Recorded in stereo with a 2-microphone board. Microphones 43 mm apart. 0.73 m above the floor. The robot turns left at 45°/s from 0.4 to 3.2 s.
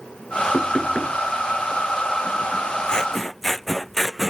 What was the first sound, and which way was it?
Knocking, 30° left (ahead or behind).